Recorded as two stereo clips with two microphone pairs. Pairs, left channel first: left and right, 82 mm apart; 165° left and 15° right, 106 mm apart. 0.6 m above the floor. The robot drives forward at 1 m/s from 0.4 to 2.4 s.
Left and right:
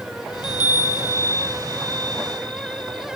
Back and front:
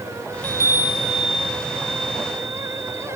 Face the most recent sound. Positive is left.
turn(degrees=165)